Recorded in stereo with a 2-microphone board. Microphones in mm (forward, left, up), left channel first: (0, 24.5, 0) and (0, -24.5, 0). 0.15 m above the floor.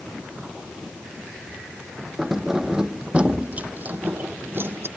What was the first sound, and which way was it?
Keys jangling, 5° right (ahead or behind).